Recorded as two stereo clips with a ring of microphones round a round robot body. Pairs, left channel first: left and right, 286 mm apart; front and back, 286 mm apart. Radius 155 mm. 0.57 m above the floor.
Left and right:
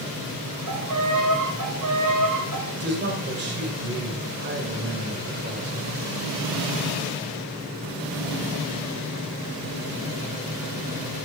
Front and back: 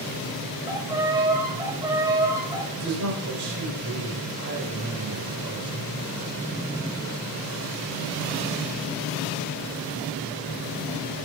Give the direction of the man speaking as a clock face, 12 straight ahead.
5 o'clock.